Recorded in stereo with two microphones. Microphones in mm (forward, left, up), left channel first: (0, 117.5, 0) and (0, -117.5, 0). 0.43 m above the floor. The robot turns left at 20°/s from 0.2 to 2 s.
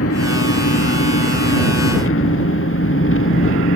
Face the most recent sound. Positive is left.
turn(degrees=65)